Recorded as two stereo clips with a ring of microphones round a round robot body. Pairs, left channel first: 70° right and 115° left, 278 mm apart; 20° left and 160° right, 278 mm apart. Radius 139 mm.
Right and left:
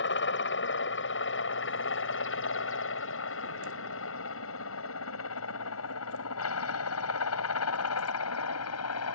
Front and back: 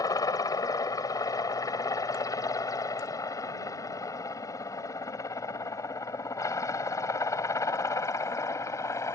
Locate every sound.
0.0 s a helicopter: 50° right; by 9.2 s 55° right